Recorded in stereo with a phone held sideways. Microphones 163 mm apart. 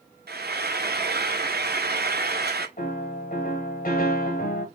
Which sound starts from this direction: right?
Frying, at 0.3 s.